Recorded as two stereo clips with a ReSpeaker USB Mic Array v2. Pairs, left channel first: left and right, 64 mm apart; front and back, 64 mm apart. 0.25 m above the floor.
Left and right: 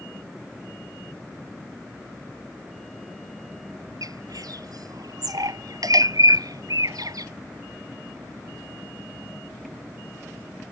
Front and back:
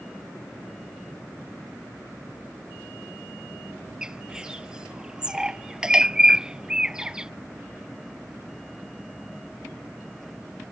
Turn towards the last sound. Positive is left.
turn(degrees=-100)